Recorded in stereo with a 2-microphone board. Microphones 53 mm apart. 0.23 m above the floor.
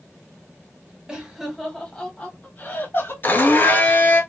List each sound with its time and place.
1.1 s laughter: 15° right (ahead or behind), 1.4 m; by 3.1 s 40° left (ahead or behind), 2 m
3.2 s a blender: 40° left (ahead or behind), 0.8 m